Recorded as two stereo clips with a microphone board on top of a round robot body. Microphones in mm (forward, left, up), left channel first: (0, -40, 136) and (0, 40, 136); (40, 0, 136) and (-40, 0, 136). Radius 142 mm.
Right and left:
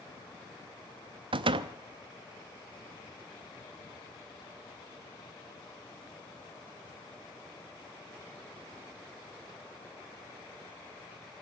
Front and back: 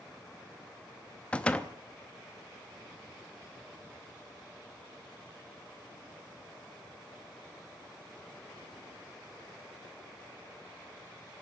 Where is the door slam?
75° left, 0.7 m.